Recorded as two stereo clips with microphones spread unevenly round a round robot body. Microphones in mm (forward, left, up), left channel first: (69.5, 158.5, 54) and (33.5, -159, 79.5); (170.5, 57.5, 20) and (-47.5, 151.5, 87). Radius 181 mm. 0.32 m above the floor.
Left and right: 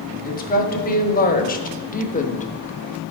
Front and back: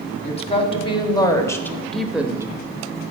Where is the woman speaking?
25° left, 1.9 m; by 2.5 s 60° left, 1.0 m.